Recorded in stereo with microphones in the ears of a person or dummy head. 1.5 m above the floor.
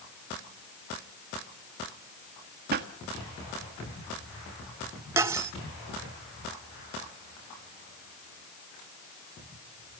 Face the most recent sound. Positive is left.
turn(degrees=-15)  # may be behind; listen again after turning